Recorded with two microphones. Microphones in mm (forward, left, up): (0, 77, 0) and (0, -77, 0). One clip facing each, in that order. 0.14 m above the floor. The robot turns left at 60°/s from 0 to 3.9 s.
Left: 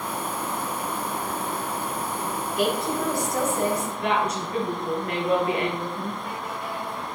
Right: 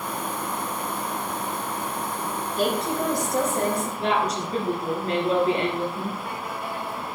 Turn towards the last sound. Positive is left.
turn(degrees=-35)  # may be behind; listen again after turning